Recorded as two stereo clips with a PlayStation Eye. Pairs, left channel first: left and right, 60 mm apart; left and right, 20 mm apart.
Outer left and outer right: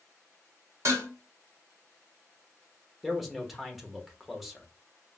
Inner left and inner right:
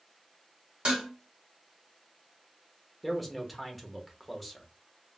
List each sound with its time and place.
0.8 s dishes clattering: 55° right (ahead or behind), 2 m
3.0 s a man speaking: 5° right (ahead or behind), 0.8 m